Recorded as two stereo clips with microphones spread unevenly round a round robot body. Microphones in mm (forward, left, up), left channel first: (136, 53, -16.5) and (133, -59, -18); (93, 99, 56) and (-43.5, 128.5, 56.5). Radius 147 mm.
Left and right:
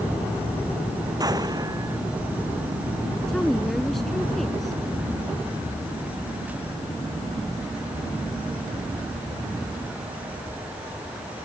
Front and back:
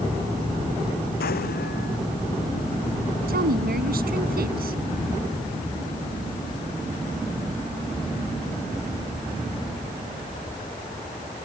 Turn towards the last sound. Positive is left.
turn(degrees=175)